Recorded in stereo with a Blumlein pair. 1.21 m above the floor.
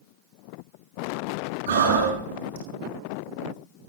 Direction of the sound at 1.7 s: 65° right.